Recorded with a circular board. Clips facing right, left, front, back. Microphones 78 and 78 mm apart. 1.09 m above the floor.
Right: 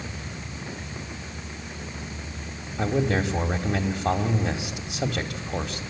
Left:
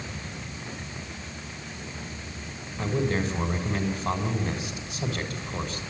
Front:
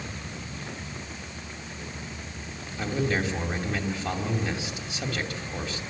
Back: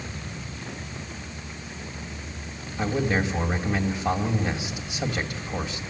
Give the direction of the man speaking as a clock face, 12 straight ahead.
4 o'clock.